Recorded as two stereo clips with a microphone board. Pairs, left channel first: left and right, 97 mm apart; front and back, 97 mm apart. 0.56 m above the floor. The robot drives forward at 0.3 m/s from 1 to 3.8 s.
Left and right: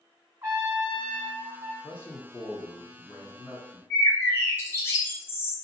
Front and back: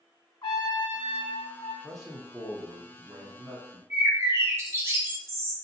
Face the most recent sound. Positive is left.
turn(degrees=135)